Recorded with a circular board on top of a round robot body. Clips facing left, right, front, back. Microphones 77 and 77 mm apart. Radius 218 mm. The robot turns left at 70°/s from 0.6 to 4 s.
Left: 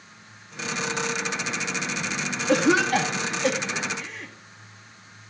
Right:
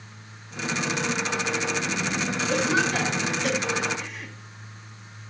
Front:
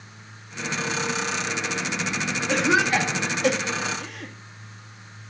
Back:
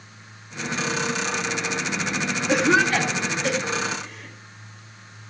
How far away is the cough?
About 2.5 m.